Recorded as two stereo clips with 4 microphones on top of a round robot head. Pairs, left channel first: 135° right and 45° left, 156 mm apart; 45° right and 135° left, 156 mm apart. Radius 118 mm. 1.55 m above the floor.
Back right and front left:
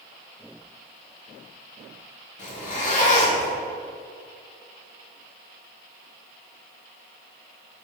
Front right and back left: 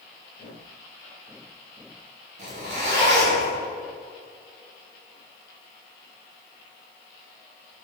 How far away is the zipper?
About 2.5 m.